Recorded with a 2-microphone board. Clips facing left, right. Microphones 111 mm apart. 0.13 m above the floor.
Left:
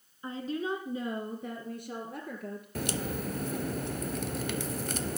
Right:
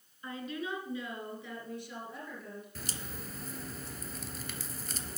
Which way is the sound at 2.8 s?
65° left (ahead or behind).